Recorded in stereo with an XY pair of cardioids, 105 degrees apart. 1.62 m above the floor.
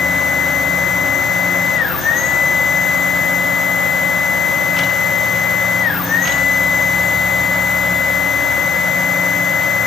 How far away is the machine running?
About 0.8 m.